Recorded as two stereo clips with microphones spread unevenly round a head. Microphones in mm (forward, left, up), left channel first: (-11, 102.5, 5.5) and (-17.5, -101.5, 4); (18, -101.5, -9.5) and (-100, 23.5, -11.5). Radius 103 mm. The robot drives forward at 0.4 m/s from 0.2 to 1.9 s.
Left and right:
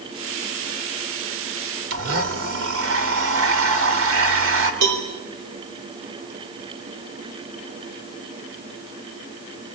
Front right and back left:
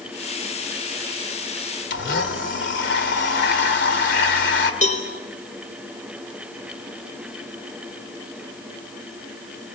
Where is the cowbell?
95° right, 4 m.